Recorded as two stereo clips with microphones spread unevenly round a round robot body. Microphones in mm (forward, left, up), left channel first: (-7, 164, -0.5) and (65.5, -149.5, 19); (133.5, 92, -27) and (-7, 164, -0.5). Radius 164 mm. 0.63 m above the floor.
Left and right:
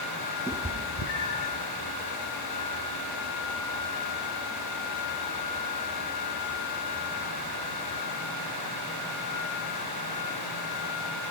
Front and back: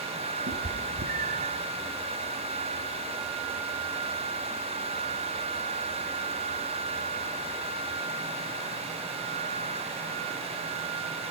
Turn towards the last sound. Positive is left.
turn(degrees=110)